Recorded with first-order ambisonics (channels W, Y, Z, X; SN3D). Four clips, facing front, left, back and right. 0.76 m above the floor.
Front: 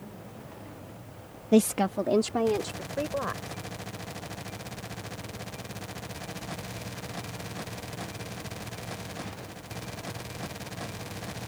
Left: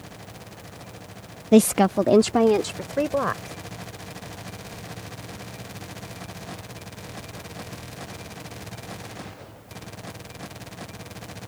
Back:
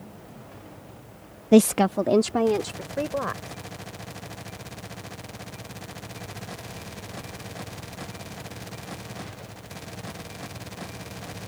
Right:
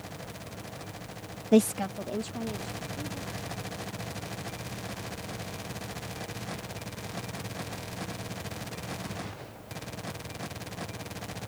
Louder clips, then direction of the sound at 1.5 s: Left 7 dB, back 6 dB; 145° left.